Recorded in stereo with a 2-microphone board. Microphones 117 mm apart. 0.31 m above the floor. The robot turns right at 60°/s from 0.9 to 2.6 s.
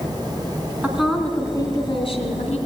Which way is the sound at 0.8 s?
10° right.